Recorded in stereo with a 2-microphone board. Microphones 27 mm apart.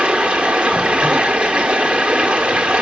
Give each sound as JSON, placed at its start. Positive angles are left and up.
{"t": 0.0, "sound": "running water", "side_deg": -45, "distance_m": 1.2}